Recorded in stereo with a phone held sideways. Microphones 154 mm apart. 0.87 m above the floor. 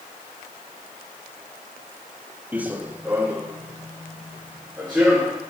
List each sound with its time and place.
2.5 s running footsteps: 10° right (ahead or behind), 0.9 m